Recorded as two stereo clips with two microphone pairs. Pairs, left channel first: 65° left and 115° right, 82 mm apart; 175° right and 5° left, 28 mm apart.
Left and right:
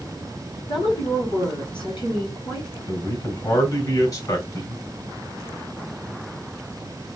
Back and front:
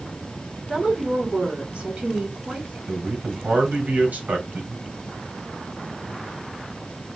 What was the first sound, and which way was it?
A woman speaking, 60° left.